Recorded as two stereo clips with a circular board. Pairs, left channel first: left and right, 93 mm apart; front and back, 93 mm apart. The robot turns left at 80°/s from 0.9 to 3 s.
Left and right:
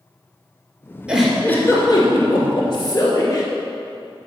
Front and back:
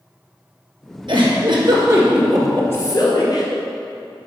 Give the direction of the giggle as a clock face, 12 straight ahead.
6 o'clock.